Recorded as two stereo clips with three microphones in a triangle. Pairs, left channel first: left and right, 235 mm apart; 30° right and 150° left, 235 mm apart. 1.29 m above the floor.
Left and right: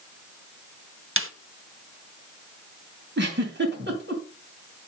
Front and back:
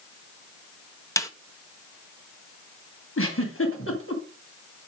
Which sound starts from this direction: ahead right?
A giggle, at 3.2 s.